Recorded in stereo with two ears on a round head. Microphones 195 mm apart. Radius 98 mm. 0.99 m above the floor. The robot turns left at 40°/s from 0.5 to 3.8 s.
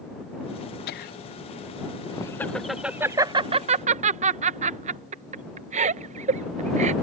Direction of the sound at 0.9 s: 45° left (ahead or behind).